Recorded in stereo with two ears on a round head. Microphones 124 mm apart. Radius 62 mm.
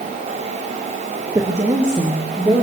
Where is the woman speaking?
20° right (ahead or behind), 1.6 m.